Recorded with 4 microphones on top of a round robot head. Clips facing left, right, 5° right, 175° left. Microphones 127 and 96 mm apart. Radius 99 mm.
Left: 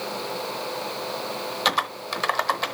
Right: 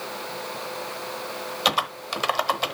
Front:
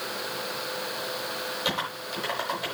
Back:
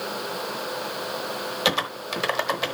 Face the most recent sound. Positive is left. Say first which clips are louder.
# right 1 dB, back 7 dB
turn(degrees=-170)